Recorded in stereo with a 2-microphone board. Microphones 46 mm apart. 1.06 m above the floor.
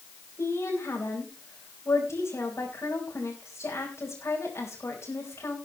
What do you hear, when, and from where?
0.4 s a woman speaking: 75° left (ahead or behind), 4.5 m